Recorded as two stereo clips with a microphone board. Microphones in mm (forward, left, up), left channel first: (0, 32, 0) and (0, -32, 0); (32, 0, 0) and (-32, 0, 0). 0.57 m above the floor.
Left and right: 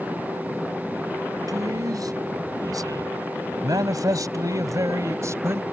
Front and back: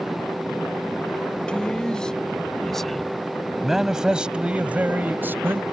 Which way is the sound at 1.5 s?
75° right.